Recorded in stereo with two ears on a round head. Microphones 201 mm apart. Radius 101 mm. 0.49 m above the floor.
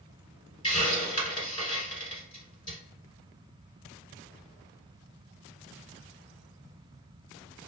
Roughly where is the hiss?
Left.